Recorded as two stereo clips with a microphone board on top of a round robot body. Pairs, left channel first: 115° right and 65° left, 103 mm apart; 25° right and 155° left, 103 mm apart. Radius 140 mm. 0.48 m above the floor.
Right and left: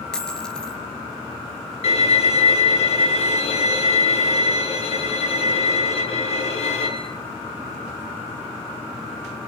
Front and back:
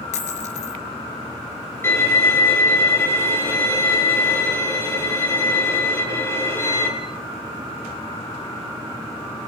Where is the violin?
90° right, 7 m.